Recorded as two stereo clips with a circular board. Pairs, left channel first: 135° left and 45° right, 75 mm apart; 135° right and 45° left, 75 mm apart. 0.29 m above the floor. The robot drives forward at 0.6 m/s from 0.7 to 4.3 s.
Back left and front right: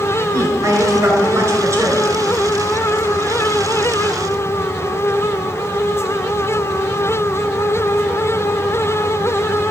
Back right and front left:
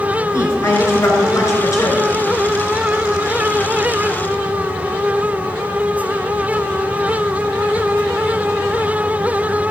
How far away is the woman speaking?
About 5 m.